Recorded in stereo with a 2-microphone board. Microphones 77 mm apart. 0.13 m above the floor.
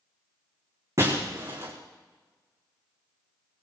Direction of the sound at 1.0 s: 50° right (ahead or behind).